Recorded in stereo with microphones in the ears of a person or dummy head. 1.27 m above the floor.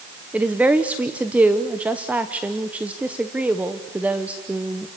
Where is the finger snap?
I don't hear a finger snap.